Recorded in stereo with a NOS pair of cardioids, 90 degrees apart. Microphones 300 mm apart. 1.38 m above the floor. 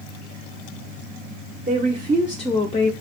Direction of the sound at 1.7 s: 25° right.